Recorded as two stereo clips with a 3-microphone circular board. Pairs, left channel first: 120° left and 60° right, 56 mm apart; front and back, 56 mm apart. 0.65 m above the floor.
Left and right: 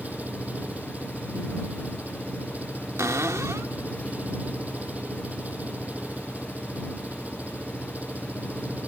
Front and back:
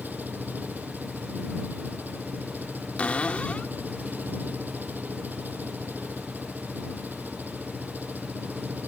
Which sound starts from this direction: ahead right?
A cupboard door, at 3.0 s.